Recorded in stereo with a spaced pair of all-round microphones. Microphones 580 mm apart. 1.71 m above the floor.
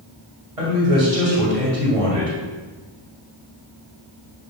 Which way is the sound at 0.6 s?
75° right (ahead or behind).